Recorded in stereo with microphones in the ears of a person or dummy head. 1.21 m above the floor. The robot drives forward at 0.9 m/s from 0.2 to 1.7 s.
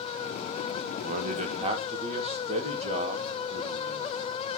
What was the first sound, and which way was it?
A man speaking, 40° right (ahead or behind).